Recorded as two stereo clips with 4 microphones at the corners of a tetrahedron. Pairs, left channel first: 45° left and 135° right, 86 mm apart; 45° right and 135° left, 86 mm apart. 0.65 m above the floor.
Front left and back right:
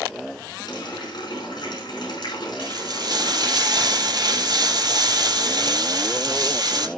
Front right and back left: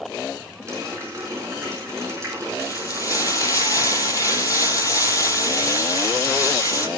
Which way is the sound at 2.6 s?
95° right.